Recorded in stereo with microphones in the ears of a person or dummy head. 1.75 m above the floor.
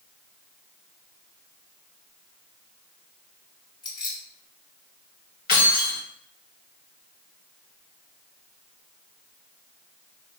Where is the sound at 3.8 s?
25° left (ahead or behind), 2.0 m.